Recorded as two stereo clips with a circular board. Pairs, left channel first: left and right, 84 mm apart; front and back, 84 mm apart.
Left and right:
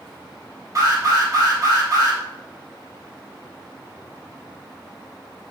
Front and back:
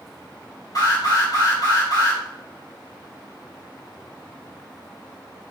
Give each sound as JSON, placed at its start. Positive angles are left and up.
{"t": 0.8, "sound": "an alarm", "azimuth_deg": -40, "distance_m": 4.0}